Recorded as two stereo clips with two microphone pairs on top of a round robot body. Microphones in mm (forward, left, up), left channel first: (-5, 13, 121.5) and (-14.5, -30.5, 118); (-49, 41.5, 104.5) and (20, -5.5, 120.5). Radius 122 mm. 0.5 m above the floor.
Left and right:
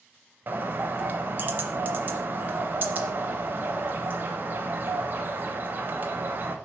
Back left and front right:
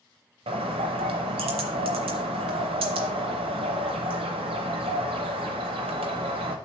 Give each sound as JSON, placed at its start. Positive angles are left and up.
{"t": 0.5, "sound": "a bird", "azimuth_deg": -50, "distance_m": 0.6}